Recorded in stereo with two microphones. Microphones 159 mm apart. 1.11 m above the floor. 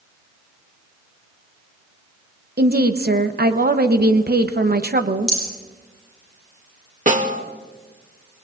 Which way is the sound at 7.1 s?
50° right (ahead or behind).